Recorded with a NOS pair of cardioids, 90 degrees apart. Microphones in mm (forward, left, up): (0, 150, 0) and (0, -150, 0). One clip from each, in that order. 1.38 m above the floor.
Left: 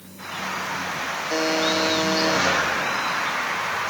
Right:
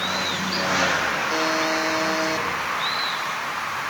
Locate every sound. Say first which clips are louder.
1.3 s a buzzer: even; 15° left, 3 m